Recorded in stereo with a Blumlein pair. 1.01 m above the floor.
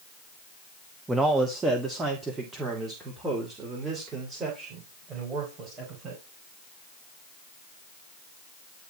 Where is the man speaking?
10° right, 1.1 m; by 6.2 s 20° right, 5 m.